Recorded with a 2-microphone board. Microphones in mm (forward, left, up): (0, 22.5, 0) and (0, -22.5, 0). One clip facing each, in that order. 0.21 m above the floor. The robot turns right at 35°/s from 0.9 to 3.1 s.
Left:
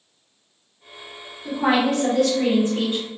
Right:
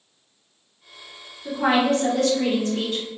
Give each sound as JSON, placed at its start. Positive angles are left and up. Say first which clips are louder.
{"t": 1.4, "sound": "a woman speaking", "louder": "even", "azimuth_deg": -10, "distance_m": 1.4}